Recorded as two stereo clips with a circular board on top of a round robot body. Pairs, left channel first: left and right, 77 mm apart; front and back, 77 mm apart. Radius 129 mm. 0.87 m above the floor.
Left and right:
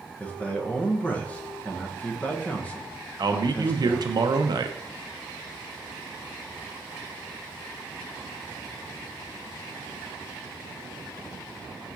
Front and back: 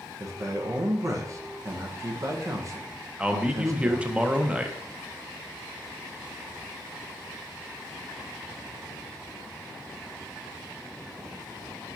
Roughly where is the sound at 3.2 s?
Right.